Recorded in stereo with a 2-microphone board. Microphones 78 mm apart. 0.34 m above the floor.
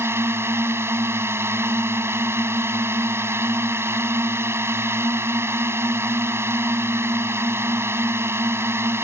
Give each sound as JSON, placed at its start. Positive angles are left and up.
{"t": 0.0, "sound": "a drone", "side_deg": -30}